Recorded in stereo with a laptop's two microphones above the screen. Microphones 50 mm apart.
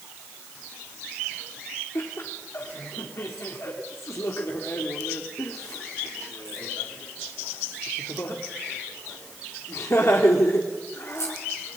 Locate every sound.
1.9 s laughter: 60° left (ahead or behind), 2.5 m